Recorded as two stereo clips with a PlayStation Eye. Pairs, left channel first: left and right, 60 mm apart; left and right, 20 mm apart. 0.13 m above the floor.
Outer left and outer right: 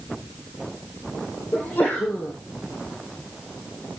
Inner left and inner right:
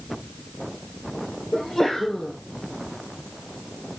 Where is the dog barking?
I don't hear a dog barking.